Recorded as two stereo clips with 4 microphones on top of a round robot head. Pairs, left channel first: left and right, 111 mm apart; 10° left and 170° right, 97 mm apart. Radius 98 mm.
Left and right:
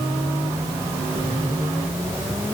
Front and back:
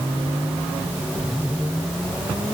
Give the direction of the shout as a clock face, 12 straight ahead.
No shout in this recording.